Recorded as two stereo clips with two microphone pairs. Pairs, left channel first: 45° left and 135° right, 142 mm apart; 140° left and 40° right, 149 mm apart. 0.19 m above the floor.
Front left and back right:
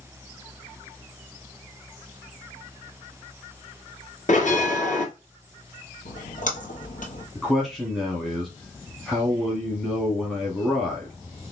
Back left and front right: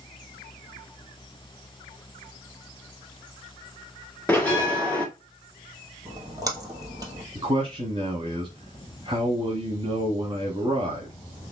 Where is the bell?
60° left, 1.9 m.